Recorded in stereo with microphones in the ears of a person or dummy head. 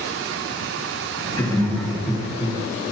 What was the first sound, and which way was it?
Laughter, 15° left (ahead or behind).